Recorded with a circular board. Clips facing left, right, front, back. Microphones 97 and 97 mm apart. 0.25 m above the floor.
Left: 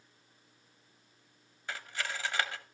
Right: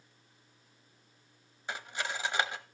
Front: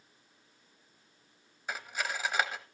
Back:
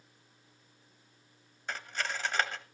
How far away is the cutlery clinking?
About 0.8 m.